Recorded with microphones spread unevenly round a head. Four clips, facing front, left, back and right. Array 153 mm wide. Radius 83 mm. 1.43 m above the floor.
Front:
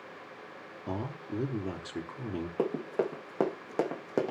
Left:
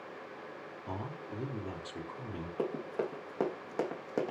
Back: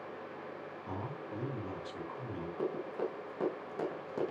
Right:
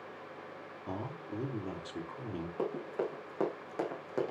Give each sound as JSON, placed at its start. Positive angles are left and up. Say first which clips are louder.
{"t": 0.9, "sound": "a man speaking", "louder": "right 1 dB, front 6 dB", "azimuth_deg": -10, "distance_m": 4.5}
{"t": 2.6, "sound": "running footsteps", "louder": "left 1 dB, front 6 dB", "azimuth_deg": 15, "distance_m": 5.5}